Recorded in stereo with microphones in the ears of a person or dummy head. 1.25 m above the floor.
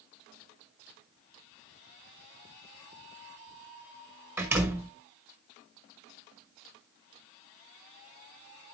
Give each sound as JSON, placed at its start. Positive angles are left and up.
{"t": 4.4, "sound": "a door slam", "side_deg": -5, "distance_m": 1.1}